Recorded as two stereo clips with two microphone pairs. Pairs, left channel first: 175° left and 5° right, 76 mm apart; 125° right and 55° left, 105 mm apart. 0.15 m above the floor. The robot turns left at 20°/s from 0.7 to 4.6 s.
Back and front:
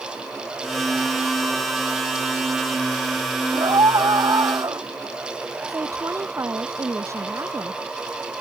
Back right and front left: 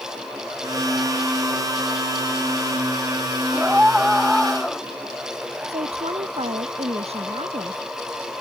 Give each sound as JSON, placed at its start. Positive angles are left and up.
{"t": 3.5, "sound": "a scream", "azimuth_deg": -20}
{"t": 5.7, "sound": "a woman speaking", "azimuth_deg": 40}